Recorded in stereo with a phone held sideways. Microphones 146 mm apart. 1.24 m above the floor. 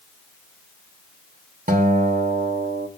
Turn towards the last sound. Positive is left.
turn(degrees=-80)